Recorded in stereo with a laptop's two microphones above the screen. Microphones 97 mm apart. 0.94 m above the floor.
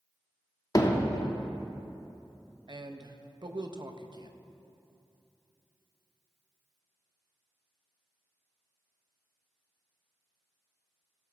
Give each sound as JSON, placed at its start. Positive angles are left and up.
{"t": 0.8, "sound": "hammering", "side_deg": 35, "distance_m": 0.7}
{"t": 2.7, "sound": "a man speaking", "side_deg": -45, "distance_m": 0.5}